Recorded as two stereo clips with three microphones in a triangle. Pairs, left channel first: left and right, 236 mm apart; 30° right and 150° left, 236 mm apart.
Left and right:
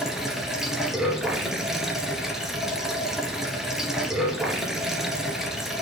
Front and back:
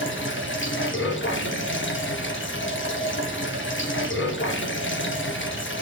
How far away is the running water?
About 1.8 m.